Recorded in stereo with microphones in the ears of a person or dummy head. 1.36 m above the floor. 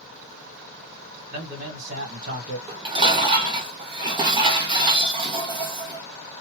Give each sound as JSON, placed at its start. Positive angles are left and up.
{"t": 1.3, "sound": "a man speaking", "side_deg": -55, "distance_m": 1.5}
{"t": 2.7, "sound": "dishes clattering", "side_deg": -30, "distance_m": 0.7}